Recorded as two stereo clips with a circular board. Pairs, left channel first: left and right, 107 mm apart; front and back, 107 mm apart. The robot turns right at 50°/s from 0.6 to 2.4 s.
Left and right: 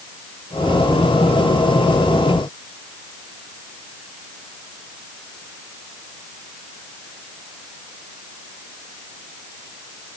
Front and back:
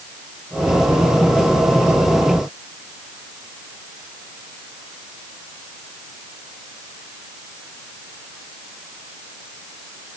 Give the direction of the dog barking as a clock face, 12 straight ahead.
I don't hear a dog barking.